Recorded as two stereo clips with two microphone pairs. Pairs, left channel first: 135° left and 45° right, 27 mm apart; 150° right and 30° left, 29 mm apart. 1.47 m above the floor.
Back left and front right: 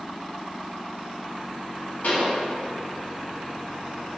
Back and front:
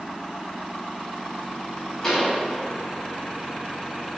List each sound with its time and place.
2.0 s a pop: 135° left, 1.0 m